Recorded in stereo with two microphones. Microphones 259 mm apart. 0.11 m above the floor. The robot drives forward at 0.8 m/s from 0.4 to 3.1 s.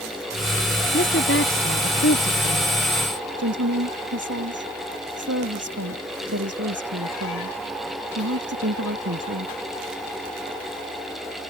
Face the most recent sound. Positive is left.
turn(degrees=-70)  # may be behind; listen again after turning